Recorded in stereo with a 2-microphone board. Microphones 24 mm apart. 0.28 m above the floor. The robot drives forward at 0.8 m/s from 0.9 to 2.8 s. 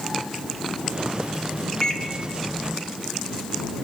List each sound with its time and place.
1.8 s a microwave: 30° left (ahead or behind), 1.0 m